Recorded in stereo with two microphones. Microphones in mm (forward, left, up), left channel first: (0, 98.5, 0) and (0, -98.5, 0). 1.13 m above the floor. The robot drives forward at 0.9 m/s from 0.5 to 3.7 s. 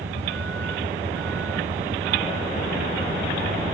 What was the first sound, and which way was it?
A vehicle, 85° right.